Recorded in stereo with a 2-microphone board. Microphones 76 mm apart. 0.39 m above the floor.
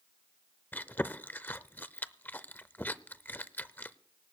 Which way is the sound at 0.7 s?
25° left (ahead or behind).